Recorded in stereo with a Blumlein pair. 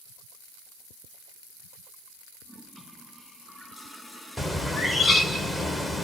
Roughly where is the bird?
Ahead.